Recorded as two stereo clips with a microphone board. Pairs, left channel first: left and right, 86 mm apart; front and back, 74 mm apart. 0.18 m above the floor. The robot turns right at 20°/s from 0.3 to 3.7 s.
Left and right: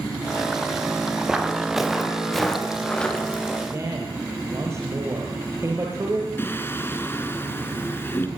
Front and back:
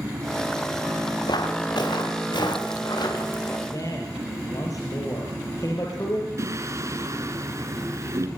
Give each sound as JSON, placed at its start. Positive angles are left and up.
{"t": 1.3, "sound": "footsteps", "azimuth_deg": -5, "distance_m": 5.0}
{"t": 3.7, "sound": "a man speaking", "azimuth_deg": -35, "distance_m": 4.5}
{"t": 6.4, "sound": "singing", "azimuth_deg": 145, "distance_m": 2.5}